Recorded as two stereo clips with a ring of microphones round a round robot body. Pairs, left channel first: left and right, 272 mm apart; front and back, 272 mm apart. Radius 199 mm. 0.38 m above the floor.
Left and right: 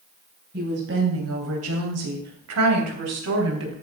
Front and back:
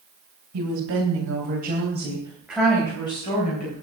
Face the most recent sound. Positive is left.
turn(degrees=-65)